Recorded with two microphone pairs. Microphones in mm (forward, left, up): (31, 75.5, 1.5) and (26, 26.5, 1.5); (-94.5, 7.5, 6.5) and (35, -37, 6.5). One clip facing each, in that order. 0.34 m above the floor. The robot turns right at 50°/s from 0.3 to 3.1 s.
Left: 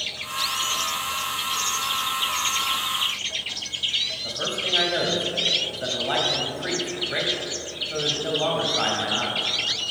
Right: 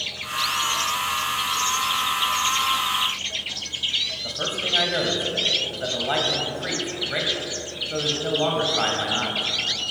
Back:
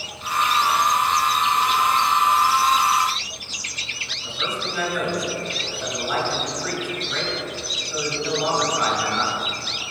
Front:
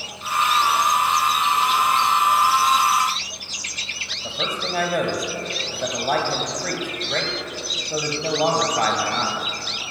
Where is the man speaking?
15° right, 1.5 m.